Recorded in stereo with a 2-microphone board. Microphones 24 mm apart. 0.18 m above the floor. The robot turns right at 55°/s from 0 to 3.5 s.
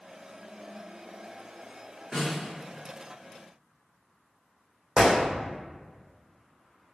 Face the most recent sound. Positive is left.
turn(degrees=-40)  # may be behind; listen again after turning